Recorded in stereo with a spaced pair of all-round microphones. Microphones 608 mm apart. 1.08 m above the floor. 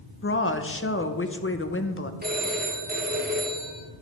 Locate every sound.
0.2 s a woman speaking: 20° left (ahead or behind), 0.7 m
2.2 s a phone ringing: 15° right (ahead or behind), 1.6 m